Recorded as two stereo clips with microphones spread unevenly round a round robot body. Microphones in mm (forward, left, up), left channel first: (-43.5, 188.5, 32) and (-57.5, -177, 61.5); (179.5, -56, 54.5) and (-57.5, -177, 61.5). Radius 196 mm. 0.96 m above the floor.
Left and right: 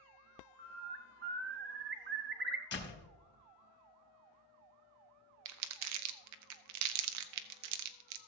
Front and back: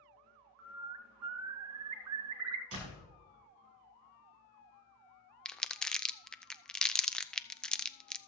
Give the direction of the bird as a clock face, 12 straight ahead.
5 o'clock.